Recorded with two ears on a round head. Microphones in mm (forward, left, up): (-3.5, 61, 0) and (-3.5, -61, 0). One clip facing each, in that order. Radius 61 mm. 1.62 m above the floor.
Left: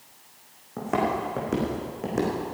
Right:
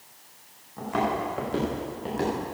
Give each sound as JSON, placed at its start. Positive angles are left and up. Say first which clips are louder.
{"t": 0.8, "sound": "footsteps", "louder": "left 1 dB", "side_deg": 70, "distance_m": 5.5}